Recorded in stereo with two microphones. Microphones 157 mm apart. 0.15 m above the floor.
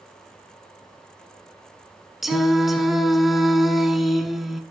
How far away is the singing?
About 1.4 m.